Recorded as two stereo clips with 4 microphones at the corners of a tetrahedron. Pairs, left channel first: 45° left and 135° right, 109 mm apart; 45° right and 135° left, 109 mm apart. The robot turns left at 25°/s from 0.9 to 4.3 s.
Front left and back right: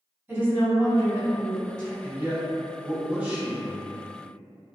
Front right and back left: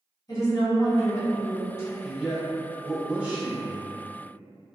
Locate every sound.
0.3 s a woman speaking: 75° right, 1.8 m; by 1.9 s 100° right, 1.8 m
2.0 s a man speaking: 155° right, 0.7 m; by 3.9 s 160° left, 0.7 m